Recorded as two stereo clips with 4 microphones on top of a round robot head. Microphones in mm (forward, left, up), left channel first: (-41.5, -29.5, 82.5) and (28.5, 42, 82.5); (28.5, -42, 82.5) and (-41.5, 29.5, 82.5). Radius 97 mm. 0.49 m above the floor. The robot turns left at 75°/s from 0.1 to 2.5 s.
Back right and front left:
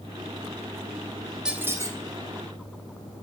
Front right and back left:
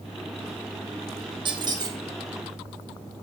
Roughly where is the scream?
No scream in this recording.